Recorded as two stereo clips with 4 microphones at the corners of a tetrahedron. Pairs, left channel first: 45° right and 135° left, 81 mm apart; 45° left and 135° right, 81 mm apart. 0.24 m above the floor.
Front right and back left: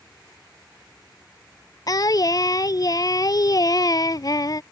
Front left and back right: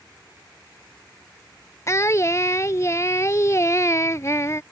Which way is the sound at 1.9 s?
5° right.